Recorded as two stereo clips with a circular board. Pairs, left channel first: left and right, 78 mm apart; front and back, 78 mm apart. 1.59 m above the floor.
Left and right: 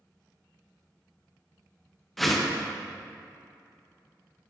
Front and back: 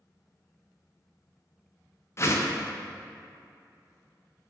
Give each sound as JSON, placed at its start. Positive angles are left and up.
{"t": 2.2, "sound": "a whoosh", "azimuth_deg": 0, "distance_m": 0.6}